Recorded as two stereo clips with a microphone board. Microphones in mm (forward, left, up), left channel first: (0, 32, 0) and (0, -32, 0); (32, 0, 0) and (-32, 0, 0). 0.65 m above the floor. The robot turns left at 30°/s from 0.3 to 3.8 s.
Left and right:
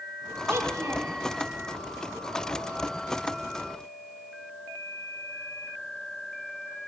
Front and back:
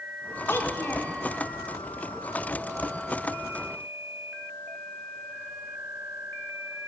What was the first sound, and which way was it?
A child speaking, 45° right.